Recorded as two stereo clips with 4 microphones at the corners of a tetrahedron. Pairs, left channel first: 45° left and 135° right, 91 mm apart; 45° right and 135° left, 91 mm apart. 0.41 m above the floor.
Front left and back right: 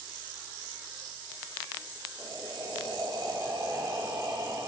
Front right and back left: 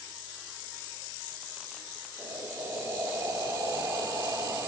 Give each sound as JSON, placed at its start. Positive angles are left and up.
{"t": 2.2, "sound": "breathing", "azimuth_deg": -170, "distance_m": 0.6}